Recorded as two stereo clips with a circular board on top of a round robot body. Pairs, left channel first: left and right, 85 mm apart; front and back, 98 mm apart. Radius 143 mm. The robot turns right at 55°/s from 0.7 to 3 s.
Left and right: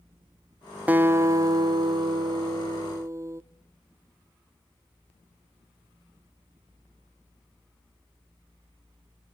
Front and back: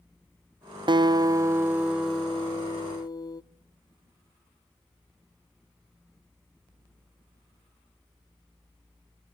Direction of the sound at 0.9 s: 155° right.